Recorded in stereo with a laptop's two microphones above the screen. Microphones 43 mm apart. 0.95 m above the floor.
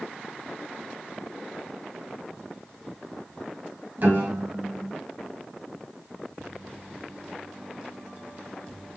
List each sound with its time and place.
4.0 s a piano: 45° right (ahead or behind), 1.8 m